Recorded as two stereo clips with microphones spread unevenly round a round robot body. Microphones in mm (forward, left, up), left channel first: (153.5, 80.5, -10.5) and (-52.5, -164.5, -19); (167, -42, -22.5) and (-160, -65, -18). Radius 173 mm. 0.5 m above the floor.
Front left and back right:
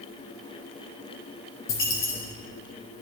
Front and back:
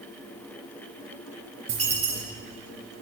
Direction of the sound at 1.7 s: 110° left.